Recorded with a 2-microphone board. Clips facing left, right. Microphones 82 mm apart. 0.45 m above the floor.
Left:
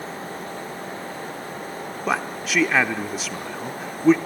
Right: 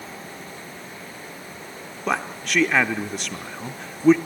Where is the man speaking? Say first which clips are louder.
Even; 5° left (ahead or behind), 0.8 m.